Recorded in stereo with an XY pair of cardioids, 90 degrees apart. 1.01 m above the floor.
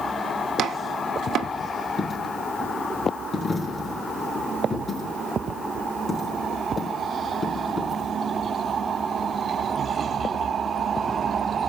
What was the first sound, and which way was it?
Chopping, 70° right.